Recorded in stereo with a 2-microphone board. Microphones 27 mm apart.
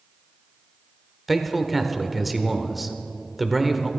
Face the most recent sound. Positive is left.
turn(degrees=0)  # may be behind; listen again after turning